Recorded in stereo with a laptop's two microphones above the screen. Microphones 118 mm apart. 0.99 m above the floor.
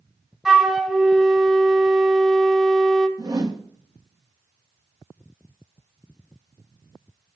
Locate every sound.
0.5 s a flute: 5° right (ahead or behind), 0.6 m
3.2 s a whoosh: 35° right (ahead or behind), 0.9 m